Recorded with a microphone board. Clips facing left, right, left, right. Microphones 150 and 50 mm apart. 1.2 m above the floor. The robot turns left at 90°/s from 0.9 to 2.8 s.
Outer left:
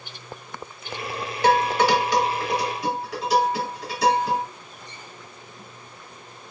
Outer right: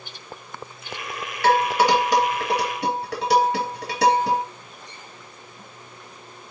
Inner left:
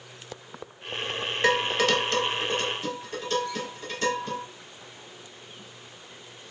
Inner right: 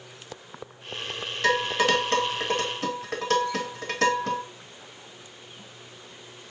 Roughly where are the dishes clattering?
Left.